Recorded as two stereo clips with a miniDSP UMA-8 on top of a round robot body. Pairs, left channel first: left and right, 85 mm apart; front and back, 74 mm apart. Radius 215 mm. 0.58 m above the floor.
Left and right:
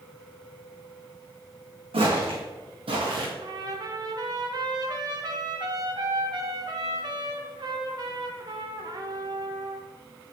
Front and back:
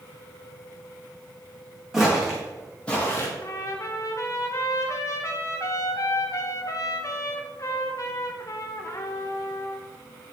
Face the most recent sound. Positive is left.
turn(degrees=-50)